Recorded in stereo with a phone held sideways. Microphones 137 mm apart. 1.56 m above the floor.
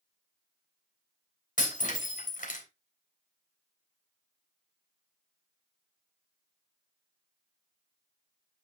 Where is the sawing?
No sawing in this recording.